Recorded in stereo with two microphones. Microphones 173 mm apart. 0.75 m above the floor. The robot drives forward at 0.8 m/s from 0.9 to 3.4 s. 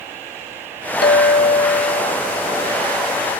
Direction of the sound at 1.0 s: 70° left (ahead or behind).